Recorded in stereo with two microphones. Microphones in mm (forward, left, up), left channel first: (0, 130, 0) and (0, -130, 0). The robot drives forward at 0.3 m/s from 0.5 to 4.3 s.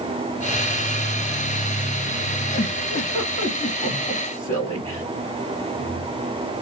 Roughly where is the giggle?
Centre.